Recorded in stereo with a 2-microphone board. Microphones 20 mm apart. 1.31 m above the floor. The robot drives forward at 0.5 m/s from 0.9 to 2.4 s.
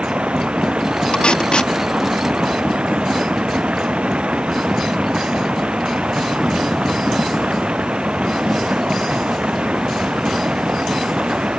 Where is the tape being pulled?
55° left (ahead or behind); by 1.7 s 65° left (ahead or behind).